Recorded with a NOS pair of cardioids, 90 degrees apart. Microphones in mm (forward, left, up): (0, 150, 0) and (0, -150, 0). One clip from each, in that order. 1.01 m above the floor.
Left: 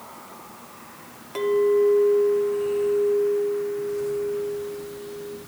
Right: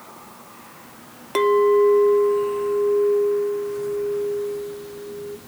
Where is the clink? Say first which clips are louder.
Right 4 dB; 50° right, 0.7 m.